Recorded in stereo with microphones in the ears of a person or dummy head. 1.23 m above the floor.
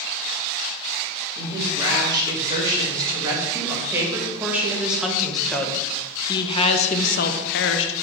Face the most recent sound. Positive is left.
turn(degrees=65)  # may be behind; listen again after turning